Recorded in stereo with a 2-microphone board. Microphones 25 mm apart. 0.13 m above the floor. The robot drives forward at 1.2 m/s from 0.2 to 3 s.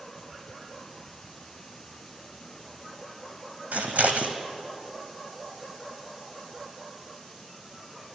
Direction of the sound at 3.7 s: 85° right.